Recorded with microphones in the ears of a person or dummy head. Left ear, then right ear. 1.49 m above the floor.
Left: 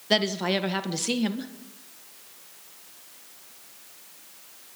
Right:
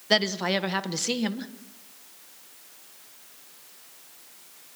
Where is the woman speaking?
15° right (ahead or behind), 1.2 m.